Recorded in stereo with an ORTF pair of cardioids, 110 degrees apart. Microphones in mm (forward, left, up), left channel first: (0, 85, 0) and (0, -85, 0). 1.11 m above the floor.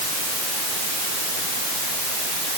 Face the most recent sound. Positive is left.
No sound to turn to.